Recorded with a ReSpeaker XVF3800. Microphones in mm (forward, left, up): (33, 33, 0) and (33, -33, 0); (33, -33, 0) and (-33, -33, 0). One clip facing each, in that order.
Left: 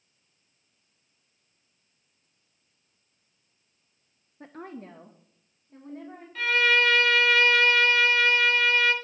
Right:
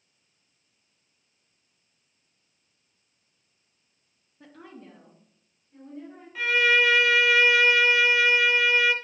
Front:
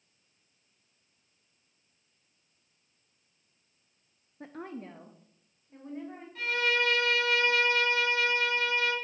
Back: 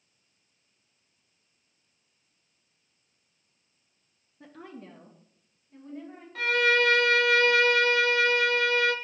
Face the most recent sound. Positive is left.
turn(degrees=-170)